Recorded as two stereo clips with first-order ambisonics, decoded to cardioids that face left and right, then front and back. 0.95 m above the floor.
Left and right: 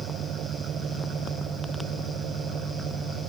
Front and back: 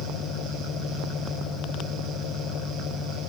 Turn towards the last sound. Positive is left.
turn(degrees=-40)